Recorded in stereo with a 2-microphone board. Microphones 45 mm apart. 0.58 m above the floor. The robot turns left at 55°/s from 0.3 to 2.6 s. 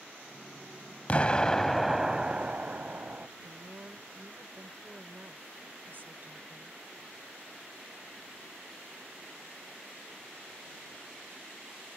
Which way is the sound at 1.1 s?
40° left.